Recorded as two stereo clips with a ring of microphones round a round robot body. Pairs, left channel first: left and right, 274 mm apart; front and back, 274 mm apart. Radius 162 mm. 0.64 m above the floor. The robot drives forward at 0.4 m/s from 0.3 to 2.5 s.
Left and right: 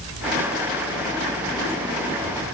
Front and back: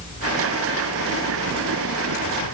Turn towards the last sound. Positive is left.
No sound to turn to.